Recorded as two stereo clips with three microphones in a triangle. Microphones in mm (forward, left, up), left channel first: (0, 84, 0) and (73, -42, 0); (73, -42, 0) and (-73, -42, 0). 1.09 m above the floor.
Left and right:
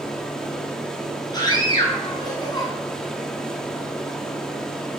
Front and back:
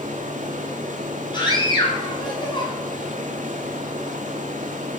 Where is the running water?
155° right, 2.5 m.